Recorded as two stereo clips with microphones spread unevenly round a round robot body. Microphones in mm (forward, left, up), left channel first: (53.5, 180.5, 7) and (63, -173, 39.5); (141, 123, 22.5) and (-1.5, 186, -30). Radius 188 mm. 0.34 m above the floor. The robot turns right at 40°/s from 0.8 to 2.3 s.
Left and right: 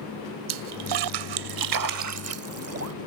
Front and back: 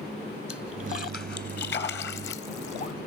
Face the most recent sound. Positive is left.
turn(degrees=-40)